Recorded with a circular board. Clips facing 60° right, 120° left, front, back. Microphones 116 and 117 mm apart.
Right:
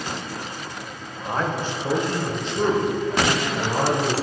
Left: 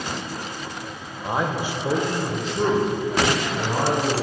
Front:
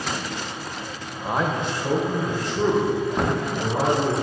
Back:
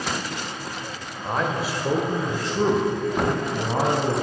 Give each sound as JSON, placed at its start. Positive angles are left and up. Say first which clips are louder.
{"t": 1.2, "sound": "a man speaking", "louder": "left 1 dB, front 1 dB", "azimuth_deg": 70, "distance_m": 0.9}